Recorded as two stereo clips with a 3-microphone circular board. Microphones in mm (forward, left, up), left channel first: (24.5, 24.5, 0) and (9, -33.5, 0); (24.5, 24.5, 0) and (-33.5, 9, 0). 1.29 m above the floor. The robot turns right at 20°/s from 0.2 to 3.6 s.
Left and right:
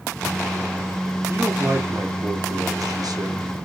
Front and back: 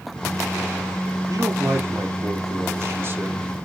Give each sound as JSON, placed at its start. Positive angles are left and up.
{"t": 1.3, "sound": "a man speaking", "azimuth_deg": -150, "distance_m": 0.8}